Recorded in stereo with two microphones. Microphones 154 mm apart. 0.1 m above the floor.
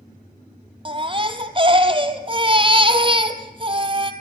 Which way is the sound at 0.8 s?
35° right (ahead or behind).